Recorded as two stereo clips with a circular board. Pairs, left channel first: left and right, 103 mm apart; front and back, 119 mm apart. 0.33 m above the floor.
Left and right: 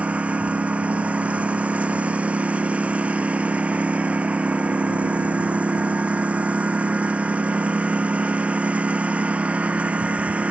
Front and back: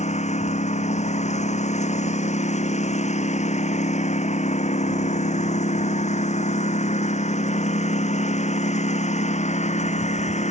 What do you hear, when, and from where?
0.0 s a lawn mower: 15° right